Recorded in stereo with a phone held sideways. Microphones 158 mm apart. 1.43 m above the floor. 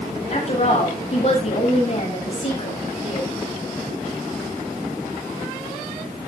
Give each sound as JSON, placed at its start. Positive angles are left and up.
{"t": 0.3, "sound": "a woman speaking", "side_deg": 45, "distance_m": 8.0}